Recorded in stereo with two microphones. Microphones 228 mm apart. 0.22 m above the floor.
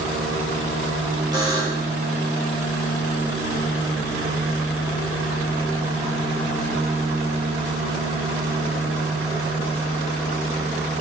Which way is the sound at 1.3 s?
15° right (ahead or behind).